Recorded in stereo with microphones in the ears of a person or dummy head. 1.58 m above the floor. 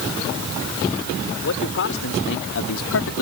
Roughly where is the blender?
No blender in this recording.